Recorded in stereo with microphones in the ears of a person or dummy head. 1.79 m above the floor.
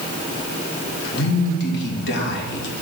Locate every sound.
1.1 s a man speaking: 70° left (ahead or behind), 2.5 m